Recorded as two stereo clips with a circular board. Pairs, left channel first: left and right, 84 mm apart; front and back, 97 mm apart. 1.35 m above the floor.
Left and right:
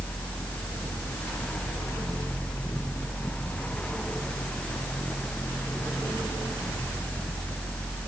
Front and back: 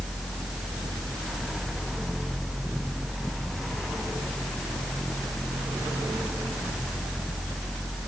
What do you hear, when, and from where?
Only background noise.